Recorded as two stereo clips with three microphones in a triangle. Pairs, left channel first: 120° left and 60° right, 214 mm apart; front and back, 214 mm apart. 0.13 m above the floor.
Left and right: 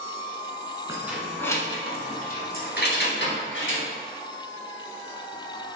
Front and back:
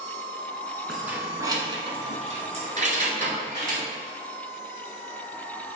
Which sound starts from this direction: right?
Keys jangling, at 0.9 s.